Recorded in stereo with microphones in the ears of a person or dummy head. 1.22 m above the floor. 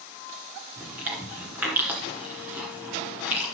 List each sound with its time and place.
0.8 s chewing: 10° right (ahead or behind), 2.5 m